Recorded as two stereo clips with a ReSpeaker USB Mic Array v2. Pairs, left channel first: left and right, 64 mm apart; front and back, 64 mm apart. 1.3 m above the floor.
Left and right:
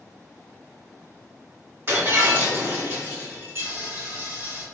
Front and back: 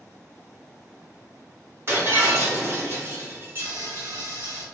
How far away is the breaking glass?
About 1.6 m.